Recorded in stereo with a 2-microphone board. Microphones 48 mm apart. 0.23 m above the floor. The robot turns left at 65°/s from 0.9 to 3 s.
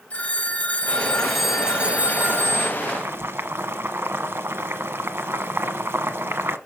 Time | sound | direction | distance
0.1 | a phone ringing | 30° left | 1.9 m
2.8 | boiling | 50° right (ahead or behind) | 0.9 m